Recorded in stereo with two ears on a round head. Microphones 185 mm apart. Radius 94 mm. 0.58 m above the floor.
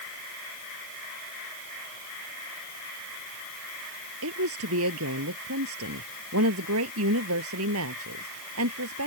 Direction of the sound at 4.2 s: 75° right (ahead or behind).